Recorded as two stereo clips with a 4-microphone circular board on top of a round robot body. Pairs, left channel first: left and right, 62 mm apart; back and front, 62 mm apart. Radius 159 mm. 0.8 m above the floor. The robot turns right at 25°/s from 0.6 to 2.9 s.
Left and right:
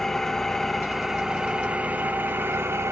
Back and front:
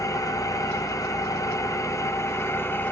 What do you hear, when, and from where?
0.0 s an engine running: 170° left, 0.8 m; by 2.9 s 130° right, 0.8 m